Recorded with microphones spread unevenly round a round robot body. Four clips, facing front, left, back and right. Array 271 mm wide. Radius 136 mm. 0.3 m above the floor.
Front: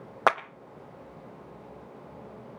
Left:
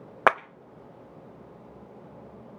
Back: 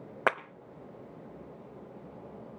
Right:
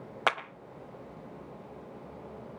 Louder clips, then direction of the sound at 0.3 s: Left 8 dB, front 5 dB; 95° left.